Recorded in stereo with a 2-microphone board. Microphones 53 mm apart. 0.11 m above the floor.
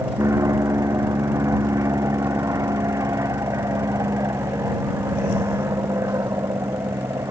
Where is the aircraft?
80° right.